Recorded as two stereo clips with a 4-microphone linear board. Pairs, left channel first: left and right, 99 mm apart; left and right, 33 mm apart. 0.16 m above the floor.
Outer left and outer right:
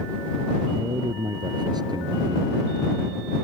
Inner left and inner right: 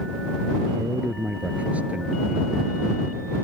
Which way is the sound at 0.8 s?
45° right (ahead or behind).